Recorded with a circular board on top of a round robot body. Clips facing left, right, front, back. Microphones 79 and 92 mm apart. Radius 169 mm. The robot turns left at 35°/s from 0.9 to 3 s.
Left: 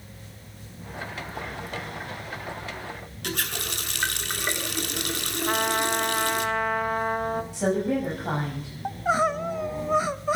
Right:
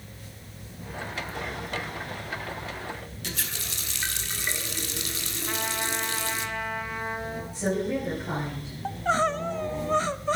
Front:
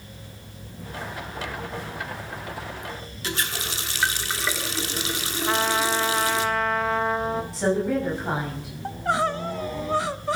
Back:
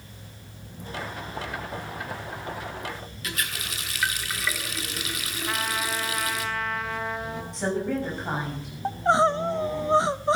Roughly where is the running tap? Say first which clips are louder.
Left 7 dB, front 4 dB; ahead left.